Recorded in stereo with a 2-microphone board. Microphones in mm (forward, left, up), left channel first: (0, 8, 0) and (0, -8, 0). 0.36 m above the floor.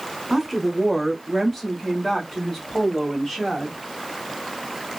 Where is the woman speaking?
Centre (ahead or behind), 1.2 m; by 3.8 s 30° left (ahead or behind), 1.7 m.